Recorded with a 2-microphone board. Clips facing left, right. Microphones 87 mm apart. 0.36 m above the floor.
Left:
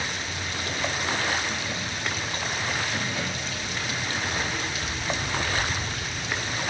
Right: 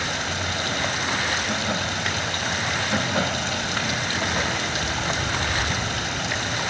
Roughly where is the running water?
Right.